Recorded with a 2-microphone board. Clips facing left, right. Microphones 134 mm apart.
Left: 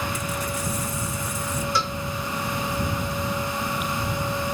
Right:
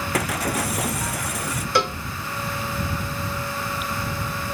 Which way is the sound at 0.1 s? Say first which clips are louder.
Right 5 dB; 75° right (ahead or behind).